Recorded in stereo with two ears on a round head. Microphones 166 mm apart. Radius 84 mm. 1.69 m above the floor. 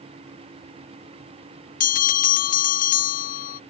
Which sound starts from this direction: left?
A bell, at 1.8 s.